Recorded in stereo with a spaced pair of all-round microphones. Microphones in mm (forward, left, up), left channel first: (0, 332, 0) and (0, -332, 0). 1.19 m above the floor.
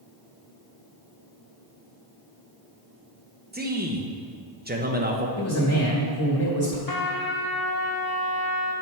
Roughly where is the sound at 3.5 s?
Centre.